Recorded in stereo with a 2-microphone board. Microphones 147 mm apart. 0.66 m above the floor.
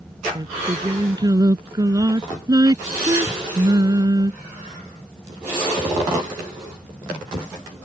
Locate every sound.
0.3 s singing: 25° right (ahead or behind)